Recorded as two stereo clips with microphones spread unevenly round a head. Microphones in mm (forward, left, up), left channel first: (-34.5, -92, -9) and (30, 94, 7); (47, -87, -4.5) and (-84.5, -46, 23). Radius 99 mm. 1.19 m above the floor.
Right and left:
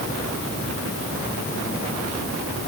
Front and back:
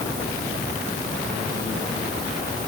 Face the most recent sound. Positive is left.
No sound to turn to.